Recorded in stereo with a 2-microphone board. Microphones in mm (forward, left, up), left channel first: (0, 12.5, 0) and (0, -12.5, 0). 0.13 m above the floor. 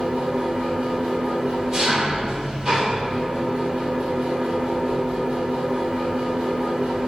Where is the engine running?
20° right (ahead or behind), 3.5 m.